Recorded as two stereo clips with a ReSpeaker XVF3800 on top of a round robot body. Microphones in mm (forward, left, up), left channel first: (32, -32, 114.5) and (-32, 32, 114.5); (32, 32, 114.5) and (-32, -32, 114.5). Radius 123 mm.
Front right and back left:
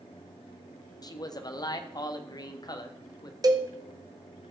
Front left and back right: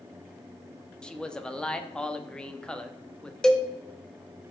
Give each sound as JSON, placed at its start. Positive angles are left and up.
{"t": 1.0, "sound": "a man speaking", "azimuth_deg": -30, "distance_m": 1.1}
{"t": 3.4, "sound": "a cowbell", "azimuth_deg": 125, "distance_m": 1.2}